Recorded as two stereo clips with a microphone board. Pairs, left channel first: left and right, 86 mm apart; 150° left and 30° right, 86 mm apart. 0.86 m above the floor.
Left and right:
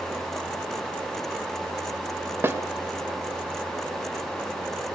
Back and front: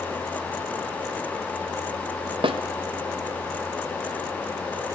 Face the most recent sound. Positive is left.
turn(degrees=-25)